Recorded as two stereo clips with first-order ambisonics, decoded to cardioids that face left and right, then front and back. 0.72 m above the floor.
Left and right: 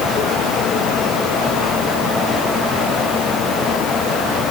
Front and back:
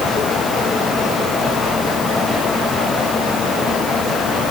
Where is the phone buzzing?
No phone buzzing in this recording.